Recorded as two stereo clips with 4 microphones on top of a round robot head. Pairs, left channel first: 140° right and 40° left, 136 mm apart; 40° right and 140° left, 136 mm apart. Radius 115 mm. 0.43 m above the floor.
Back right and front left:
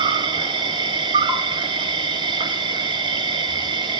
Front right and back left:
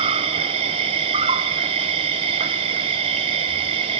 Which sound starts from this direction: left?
An insect, at 0.0 s.